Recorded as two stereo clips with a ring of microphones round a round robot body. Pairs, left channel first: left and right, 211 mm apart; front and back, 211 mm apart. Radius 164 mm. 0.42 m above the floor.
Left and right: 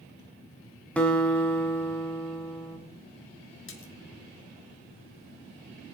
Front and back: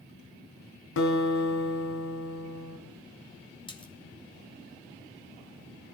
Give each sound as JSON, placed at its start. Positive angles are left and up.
{"t": 1.0, "sound": "a guitar", "azimuth_deg": 5, "distance_m": 2.5}
{"t": 3.7, "sound": "a splash", "azimuth_deg": 70, "distance_m": 2.0}